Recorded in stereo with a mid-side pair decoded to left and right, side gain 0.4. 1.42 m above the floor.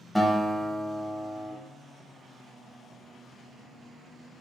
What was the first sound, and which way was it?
A guitar, 5° right.